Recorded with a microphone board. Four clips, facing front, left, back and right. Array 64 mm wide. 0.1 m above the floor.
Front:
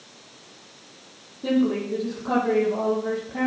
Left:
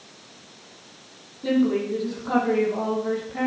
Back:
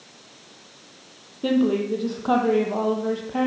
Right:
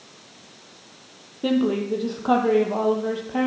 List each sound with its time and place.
1.4 s a woman speaking: 125° right, 3.5 m